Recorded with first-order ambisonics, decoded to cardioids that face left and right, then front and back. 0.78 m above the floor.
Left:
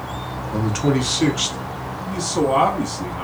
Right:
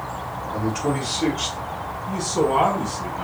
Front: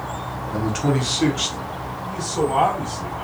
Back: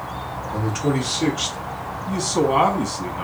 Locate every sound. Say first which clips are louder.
0.5 s a man speaking: left 3 dB, front 1 dB; 65° left, 1.0 m
2.1 s a man speaking: left 2 dB, back 3 dB; 150° left, 1.0 m